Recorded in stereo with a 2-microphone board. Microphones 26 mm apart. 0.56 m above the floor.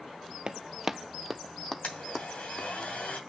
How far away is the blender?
About 2.5 m.